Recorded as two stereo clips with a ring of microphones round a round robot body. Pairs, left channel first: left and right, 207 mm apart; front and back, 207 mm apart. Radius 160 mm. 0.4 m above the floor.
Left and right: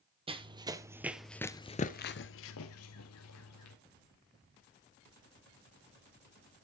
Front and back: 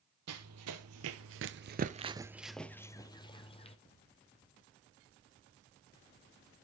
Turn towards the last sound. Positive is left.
turn(degrees=65)